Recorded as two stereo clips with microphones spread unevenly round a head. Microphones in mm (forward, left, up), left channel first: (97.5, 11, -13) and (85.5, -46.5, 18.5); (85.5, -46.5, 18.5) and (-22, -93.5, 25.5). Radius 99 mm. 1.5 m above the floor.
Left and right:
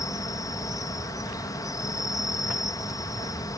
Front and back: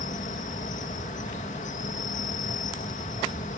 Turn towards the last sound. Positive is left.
turn(degrees=65)